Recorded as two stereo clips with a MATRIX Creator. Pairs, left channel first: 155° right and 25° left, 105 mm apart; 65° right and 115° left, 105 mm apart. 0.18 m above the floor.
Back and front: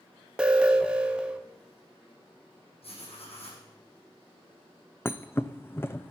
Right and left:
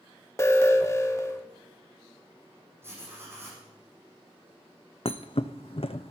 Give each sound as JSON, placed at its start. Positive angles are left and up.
{"t": 0.4, "sound": "an alarm", "azimuth_deg": -50, "distance_m": 0.8}
{"t": 2.8, "sound": "writing", "azimuth_deg": 180, "distance_m": 4.5}
{"t": 5.0, "sound": "a thud", "azimuth_deg": -90, "distance_m": 0.6}